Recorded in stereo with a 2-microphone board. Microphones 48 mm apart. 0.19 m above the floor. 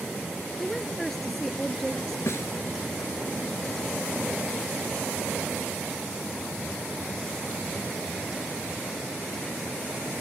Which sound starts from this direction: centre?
A woman speaking, at 0.6 s.